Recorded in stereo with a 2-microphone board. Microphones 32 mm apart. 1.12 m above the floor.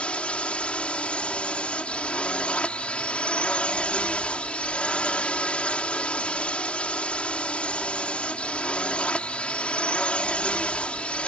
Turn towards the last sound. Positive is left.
turn(degrees=45)  # may be behind; listen again after turning